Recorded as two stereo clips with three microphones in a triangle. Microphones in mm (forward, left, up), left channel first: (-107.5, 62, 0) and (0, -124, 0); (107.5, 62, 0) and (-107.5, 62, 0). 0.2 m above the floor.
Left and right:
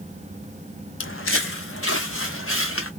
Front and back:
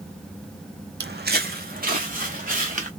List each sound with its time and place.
1.0 s footsteps: 140° left, 0.5 m; by 2.9 s 125° left, 1.5 m